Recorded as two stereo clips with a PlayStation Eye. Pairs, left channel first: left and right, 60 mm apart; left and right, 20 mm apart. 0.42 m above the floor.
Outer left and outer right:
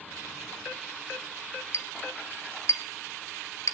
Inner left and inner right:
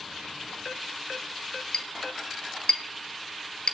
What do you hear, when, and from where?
1.7 s a clink: 55° left (ahead or behind), 1.2 m